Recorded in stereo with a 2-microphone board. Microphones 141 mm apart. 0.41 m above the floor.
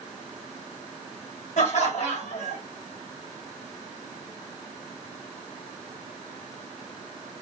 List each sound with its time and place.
1.6 s laughter: 60° left (ahead or behind), 1.9 m